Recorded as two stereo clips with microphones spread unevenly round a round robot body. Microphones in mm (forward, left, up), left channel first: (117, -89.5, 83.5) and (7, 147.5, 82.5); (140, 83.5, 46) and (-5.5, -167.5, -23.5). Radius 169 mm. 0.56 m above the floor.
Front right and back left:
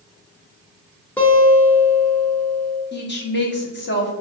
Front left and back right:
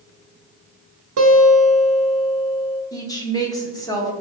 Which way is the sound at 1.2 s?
150° right.